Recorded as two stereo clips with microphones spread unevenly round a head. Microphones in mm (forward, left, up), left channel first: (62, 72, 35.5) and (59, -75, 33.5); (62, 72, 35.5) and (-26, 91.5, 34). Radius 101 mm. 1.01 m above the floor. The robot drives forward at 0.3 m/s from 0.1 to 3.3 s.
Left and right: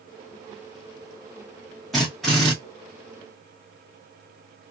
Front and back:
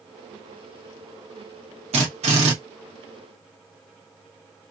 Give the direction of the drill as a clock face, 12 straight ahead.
6 o'clock.